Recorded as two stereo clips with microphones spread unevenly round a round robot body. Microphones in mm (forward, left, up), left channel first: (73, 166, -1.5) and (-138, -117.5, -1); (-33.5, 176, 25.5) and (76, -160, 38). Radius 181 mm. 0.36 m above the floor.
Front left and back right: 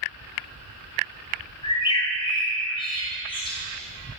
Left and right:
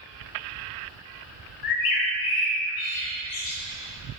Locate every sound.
1.6 s a bird: 130° left, 2.5 m